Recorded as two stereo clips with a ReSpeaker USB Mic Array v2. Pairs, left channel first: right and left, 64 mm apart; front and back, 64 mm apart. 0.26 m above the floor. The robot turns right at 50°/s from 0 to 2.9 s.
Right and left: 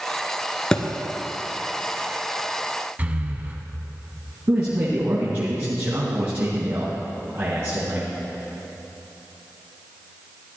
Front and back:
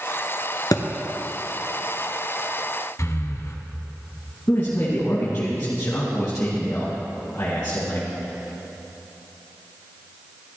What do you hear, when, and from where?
0.7 s a thud: 10° right, 1.0 m; by 0.8 s 5° right, 1.0 m
3.0 s breathing: 30° left, 1.1 m
4.5 s a man speaking: 50° left, 2 m